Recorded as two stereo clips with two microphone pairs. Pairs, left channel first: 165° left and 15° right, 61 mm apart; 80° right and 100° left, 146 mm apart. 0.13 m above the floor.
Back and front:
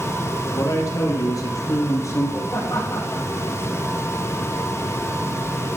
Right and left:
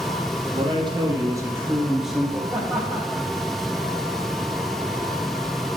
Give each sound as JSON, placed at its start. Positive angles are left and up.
{"t": 0.5, "sound": "a man speaking", "azimuth_deg": 150, "distance_m": 4.0}
{"t": 2.5, "sound": "laughter", "azimuth_deg": -175, "distance_m": 7.0}